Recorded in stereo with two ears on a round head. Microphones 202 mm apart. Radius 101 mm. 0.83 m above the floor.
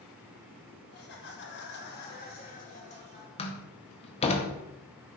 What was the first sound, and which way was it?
Laughter, 50° left (ahead or behind).